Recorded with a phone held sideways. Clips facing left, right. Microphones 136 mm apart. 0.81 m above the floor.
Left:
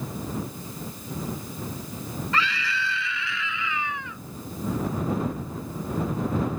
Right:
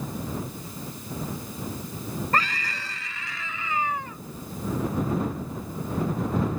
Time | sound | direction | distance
2.3 | a scream | 45° right (ahead or behind) | ?